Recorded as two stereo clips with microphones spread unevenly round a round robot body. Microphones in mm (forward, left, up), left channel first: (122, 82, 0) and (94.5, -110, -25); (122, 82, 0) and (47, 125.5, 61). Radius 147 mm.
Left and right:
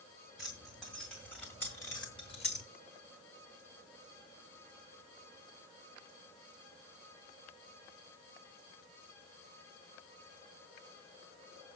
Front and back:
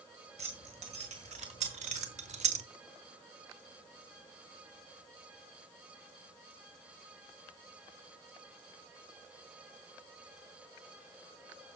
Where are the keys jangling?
175° left, 2 m; by 2.7 s 145° left, 0.8 m.